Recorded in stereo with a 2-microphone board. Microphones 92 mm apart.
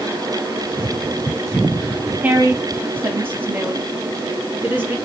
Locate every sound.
2.2 s a woman speaking: 20° right (ahead or behind), 1.2 m